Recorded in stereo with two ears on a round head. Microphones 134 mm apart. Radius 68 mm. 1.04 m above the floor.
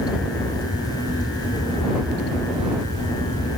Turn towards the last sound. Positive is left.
No sound to turn to.